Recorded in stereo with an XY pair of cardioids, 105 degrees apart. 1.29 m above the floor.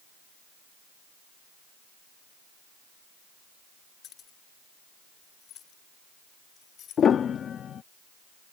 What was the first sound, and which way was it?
Keys jangling, 65° left.